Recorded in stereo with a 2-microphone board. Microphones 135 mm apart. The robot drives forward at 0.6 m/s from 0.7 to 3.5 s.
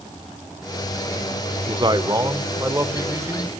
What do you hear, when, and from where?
1.7 s a man speaking: 35° right (ahead or behind), 0.9 m; by 3.5 s 15° right (ahead or behind), 1.7 m